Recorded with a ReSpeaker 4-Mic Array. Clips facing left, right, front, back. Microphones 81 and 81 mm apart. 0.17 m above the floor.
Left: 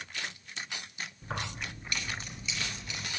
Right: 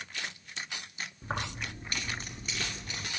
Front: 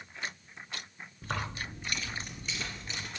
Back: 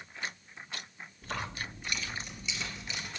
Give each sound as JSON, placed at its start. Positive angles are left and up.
{"t": 1.2, "sound": "keys jangling", "azimuth_deg": -35, "distance_m": 1.8}